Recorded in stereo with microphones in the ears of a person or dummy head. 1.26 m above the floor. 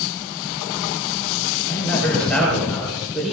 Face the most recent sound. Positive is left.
turn(degrees=-5)  # may be behind; listen again after turning